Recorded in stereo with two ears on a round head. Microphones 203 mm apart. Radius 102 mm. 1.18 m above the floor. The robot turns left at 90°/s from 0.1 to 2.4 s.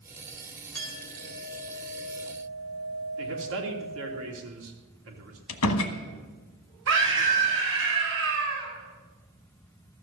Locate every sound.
0.8 s a clink: 175° left, 4 m; by 4.2 s 25° left, 4 m
3.2 s a man speaking: 60° right (ahead or behind), 3 m
5.5 s a door slam: 80° left, 1.4 m
6.9 s a scream: 55° right (ahead or behind), 6 m